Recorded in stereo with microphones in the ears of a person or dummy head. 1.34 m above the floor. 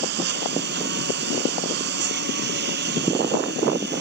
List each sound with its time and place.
0.0 s a lawn mower: 70° right (ahead or behind)